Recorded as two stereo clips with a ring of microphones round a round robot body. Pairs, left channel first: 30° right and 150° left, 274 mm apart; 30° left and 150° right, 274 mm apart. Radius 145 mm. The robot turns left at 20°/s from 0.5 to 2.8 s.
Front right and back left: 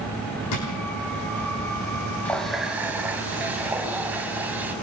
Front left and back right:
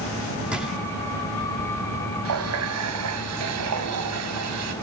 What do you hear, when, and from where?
0.5 s a drawer: 65° right, 9 m
2.2 s a running tap: 115° right, 2 m; by 4.7 s 125° right, 2 m